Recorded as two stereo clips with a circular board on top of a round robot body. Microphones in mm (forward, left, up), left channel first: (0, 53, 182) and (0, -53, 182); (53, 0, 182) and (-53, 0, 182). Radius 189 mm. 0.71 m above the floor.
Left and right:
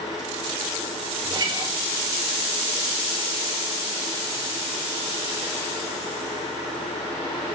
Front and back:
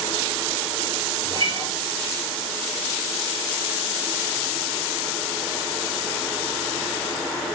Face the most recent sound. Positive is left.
turn(degrees=-140)